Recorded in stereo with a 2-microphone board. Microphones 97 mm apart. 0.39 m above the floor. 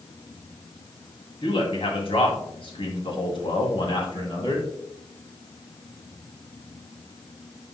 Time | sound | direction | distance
1.4 | a man speaking | 65° left (ahead or behind) | 2.5 m